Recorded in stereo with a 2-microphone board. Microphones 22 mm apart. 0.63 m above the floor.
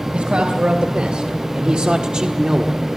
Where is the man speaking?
65° right (ahead or behind), 2.5 m; by 2.9 s 20° right (ahead or behind), 1.5 m.